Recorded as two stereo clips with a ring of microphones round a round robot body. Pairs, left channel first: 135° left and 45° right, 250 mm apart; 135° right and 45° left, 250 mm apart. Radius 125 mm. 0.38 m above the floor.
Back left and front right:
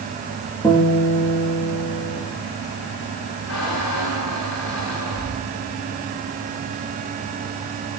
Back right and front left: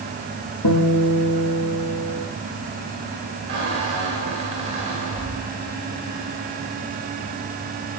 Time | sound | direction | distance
0.6 | a guitar | 145° right | 6.5 m
3.5 | a squeak | 115° left | 9 m